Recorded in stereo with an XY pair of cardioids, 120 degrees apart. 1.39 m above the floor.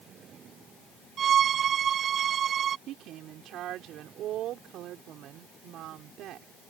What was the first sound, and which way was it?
A violin, 55° right.